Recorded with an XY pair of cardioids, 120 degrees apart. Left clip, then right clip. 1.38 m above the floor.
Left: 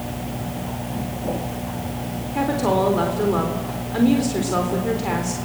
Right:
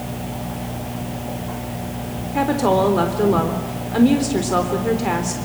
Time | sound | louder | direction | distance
2.4 | a woman speaking | right 3 dB | 20° right | 3.5 m